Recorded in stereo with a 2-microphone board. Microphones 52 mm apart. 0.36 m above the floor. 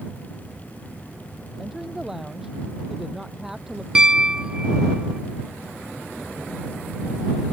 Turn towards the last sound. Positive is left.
turn(degrees=-15)  # may be behind; listen again after turning